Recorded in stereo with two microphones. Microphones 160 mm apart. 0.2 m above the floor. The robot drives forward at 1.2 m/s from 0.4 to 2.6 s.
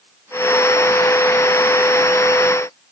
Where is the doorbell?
I don't hear a doorbell.